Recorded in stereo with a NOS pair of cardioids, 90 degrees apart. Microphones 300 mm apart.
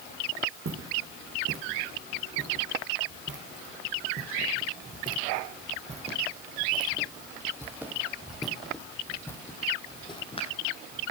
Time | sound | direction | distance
0.7 | footsteps | 50° right | 5.5 m